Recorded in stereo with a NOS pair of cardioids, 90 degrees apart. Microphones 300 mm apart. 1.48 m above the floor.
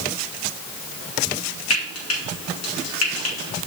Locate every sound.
1.7 s frying: 55° left, 3 m